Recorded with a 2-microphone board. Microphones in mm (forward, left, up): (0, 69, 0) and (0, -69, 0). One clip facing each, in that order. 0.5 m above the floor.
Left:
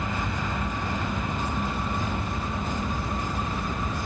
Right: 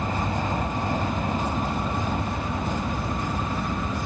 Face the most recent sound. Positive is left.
turn(degrees=-40)  # may be behind; listen again after turning